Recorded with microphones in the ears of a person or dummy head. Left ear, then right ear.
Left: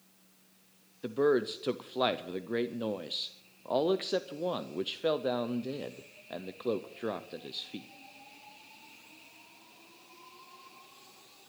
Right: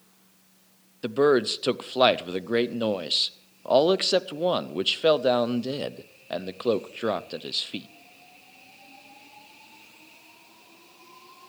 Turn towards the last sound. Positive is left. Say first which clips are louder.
# right 7 dB
turn(degrees=-25)  # may be behind; listen again after turning